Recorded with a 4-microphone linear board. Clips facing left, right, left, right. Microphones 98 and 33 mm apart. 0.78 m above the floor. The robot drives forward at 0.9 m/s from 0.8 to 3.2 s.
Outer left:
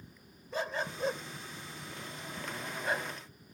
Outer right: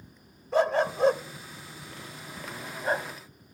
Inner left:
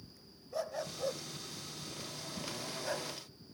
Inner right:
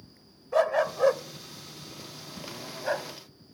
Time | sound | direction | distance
0.5 | a dog barking | 75° right (ahead or behind) | ?